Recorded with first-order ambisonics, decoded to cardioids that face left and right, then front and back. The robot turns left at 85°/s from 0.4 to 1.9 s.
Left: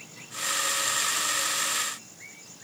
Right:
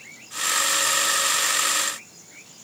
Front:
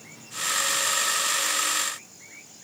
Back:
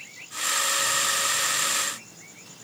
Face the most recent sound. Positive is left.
No sound to turn to.